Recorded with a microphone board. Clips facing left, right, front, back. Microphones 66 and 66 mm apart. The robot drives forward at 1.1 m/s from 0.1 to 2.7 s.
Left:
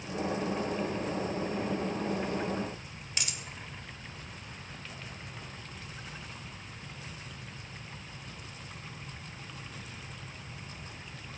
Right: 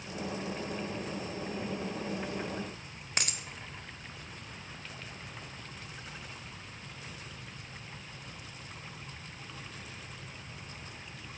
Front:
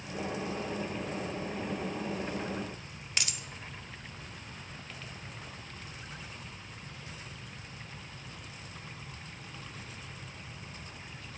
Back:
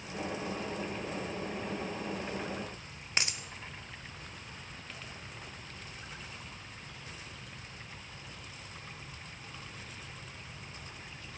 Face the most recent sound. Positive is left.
turn(degrees=-125)